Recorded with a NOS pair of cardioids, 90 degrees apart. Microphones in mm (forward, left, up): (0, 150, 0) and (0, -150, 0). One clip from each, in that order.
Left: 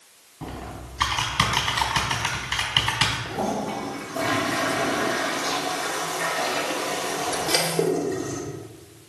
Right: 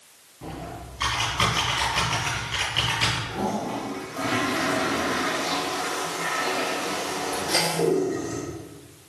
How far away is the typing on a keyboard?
About 3.5 m.